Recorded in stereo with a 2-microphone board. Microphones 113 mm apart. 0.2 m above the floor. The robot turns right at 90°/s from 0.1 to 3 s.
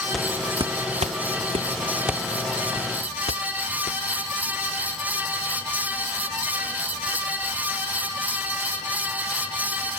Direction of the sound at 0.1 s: 5° left (ahead or behind).